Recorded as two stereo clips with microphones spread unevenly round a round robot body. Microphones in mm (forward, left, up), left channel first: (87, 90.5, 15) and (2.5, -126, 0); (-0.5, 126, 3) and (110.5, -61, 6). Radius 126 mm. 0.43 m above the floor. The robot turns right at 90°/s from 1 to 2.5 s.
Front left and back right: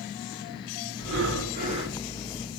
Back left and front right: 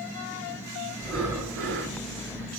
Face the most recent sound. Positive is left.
turn(degrees=20)